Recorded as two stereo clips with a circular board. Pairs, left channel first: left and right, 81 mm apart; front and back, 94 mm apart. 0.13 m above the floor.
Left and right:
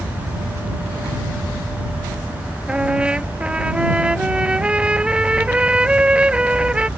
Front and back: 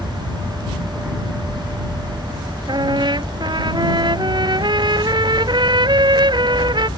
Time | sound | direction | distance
2.7 | a trumpet | 165° right | ?